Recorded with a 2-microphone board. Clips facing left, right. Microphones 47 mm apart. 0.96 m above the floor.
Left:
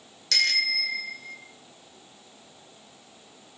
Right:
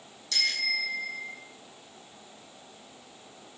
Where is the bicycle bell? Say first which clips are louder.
Left 4 dB; 85° left, 2.5 m; by 1.4 s 80° left, 2 m.